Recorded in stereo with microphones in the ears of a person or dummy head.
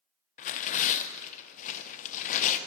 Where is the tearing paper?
40° left (ahead or behind), 0.8 m.